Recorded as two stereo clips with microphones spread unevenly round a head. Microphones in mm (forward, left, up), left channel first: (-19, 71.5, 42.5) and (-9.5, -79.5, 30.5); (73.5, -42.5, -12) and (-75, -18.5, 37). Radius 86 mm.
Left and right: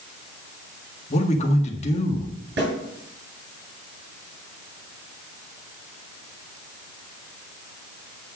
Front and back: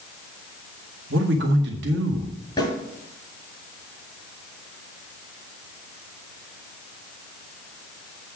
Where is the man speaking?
140° left, 1.8 m.